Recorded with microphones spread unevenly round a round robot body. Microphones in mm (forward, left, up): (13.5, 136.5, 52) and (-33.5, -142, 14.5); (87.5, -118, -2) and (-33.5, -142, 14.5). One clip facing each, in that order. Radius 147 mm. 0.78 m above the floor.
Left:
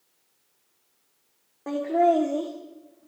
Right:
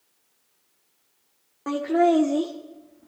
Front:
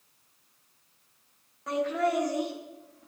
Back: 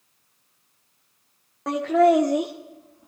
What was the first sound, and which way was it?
Laughter, 165° right.